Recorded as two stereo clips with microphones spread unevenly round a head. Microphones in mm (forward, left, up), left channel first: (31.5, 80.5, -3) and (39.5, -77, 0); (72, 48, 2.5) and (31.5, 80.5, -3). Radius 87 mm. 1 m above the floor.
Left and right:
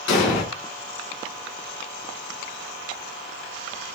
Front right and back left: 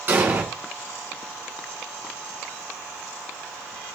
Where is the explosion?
90° left, 2 m.